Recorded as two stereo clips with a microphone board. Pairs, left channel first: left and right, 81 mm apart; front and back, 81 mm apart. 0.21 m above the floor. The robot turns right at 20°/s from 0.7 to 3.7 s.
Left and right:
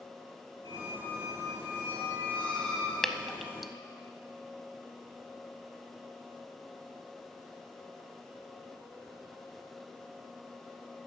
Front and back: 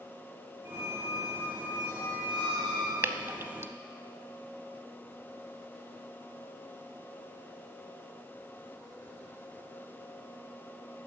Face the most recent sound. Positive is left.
turn(degrees=-175)